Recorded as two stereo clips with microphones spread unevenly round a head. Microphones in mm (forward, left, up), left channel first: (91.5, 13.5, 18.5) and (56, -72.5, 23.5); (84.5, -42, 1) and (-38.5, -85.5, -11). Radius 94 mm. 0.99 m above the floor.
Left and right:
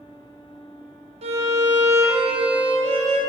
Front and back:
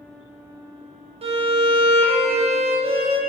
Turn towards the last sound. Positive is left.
turn(degrees=-115)